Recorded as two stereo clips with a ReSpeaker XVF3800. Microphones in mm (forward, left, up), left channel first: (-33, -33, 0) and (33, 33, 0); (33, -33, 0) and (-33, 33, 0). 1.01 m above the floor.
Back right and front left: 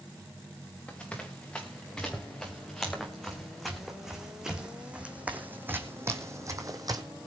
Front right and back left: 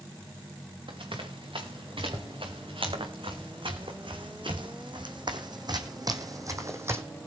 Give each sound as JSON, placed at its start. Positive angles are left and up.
{"t": 0.9, "sound": "running footsteps", "azimuth_deg": 150, "distance_m": 5.0}